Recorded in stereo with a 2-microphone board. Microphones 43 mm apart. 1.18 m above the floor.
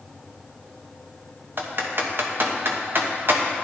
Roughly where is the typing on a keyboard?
Right.